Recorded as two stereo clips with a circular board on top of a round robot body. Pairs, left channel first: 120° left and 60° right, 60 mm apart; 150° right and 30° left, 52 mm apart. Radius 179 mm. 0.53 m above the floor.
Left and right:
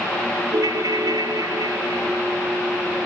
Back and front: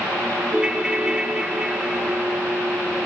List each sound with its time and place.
0.5 s a ringtone: 45° right, 1.2 m